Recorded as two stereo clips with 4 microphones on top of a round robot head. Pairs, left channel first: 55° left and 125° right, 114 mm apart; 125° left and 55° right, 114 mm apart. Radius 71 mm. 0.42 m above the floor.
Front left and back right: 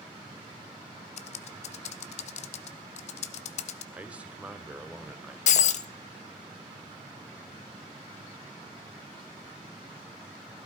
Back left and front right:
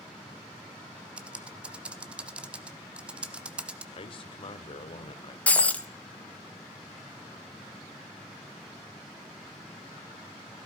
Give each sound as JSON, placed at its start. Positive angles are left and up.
{"t": 1.2, "sound": "typing on a keyboard", "azimuth_deg": 30, "distance_m": 0.8}
{"t": 3.9, "sound": "a man speaking", "azimuth_deg": 155, "distance_m": 1.5}
{"t": 5.5, "sound": "breaking glass", "azimuth_deg": 50, "distance_m": 0.9}